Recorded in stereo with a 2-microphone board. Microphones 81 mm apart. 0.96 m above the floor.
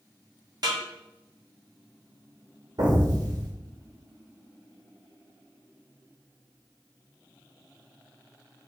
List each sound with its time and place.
0.6 s a snare drum: 55° right (ahead or behind), 1.4 m
2.8 s an explosion: 60° right (ahead or behind), 1.3 m